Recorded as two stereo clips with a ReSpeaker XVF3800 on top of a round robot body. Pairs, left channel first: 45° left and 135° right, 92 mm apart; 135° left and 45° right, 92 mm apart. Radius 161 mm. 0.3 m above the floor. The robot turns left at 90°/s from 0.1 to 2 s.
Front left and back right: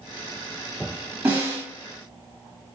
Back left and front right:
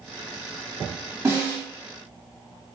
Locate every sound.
1.2 s a snare drum: 80° right, 1.6 m; by 1.6 s 115° right, 1.6 m